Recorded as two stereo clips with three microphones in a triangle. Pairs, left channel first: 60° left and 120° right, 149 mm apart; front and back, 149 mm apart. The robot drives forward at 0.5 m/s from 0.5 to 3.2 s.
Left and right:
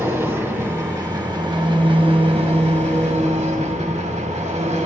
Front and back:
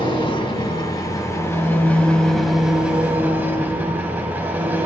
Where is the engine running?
50° right, 1.8 m; by 4.9 s 105° right, 1.5 m.